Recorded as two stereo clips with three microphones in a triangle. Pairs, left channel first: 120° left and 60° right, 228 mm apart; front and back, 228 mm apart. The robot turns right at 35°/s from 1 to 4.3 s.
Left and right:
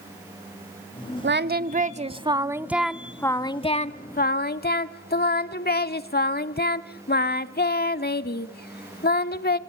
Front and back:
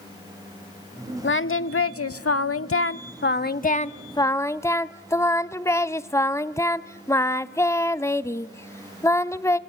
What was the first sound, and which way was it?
Singing, 30° right.